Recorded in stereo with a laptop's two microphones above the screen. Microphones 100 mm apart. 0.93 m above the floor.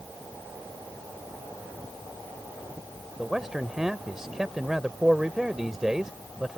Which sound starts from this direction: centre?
A man speaking, at 3.2 s.